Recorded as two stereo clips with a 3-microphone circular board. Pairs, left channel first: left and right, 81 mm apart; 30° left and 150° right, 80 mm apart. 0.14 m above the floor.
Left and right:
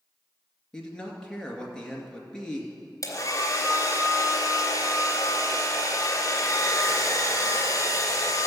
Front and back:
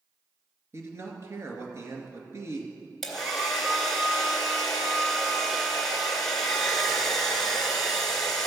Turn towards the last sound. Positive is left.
turn(degrees=115)